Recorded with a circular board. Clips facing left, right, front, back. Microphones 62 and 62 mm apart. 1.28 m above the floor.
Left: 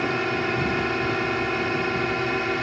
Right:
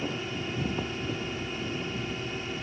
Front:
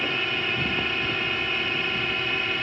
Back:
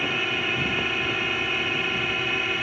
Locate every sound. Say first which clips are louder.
0.0 s a drone: left 9 dB, back 1 dB; 95° left